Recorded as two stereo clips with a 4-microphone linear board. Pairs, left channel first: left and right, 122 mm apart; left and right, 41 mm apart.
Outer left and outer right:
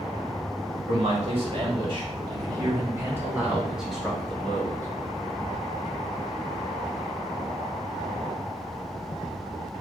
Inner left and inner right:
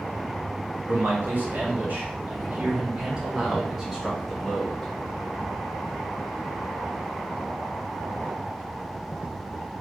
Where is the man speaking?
55° right (ahead or behind), 2 m; by 4.9 s 15° left (ahead or behind), 1.8 m.